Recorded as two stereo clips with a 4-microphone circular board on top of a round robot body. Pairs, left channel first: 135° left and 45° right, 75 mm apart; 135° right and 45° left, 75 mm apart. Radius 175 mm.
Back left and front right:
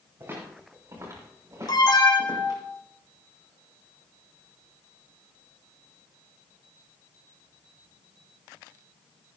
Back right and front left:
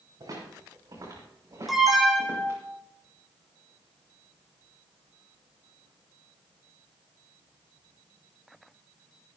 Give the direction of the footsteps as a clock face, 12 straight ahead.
12 o'clock.